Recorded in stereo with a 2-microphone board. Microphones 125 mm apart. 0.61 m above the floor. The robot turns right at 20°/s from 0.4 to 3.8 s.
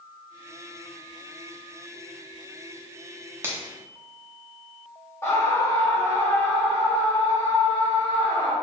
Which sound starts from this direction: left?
A scream, at 5.2 s.